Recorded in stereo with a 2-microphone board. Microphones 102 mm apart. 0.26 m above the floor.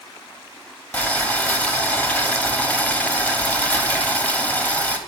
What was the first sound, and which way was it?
Boiling, 15° left (ahead or behind).